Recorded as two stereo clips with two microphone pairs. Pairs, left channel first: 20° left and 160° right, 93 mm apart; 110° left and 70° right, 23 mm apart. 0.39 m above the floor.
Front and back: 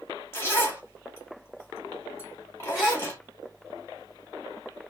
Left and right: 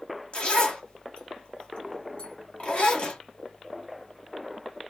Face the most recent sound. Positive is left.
turn(degrees=110)